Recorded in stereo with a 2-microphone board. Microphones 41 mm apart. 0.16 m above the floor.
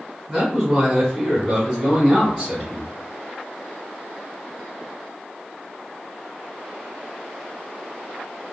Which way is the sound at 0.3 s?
Centre (ahead or behind).